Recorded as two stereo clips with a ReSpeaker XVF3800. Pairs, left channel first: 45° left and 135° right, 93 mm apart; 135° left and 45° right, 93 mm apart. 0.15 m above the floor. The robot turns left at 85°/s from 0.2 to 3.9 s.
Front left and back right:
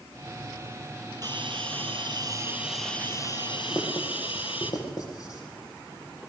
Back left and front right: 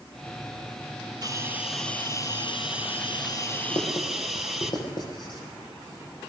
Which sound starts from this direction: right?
A hiss, at 1.2 s.